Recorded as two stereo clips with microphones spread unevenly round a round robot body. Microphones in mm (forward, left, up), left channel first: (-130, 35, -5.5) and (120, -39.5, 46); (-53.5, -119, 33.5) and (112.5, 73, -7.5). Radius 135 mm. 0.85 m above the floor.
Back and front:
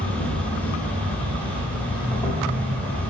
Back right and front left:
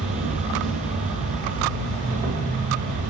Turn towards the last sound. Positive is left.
turn(degrees=90)